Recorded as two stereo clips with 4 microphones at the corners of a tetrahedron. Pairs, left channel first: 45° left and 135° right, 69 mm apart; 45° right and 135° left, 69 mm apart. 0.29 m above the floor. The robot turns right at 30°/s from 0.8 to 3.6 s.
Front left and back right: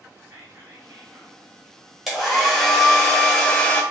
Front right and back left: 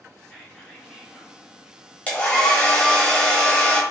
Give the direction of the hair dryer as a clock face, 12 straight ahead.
2 o'clock.